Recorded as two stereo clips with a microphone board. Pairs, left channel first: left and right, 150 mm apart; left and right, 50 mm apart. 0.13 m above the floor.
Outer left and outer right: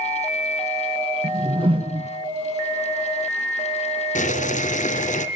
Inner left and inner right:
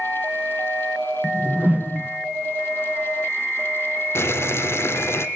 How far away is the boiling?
About 1.1 m.